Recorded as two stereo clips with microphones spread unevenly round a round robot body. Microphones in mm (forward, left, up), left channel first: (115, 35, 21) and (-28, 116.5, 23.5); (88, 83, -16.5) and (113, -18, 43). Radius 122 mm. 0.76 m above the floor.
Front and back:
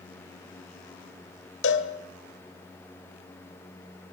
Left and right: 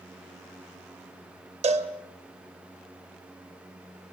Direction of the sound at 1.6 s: 55° right.